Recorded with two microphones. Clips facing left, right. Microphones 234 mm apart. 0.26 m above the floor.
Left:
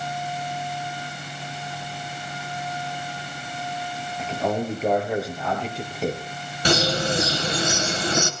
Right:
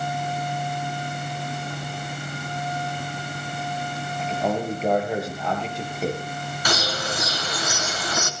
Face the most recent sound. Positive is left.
turn(degrees=30)  # may be behind; listen again after turning